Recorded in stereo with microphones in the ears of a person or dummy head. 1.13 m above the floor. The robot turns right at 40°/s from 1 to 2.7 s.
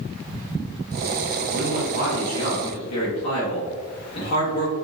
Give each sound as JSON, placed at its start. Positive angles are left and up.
{"t": 1.5, "sound": "a man speaking", "azimuth_deg": 60, "distance_m": 1.2}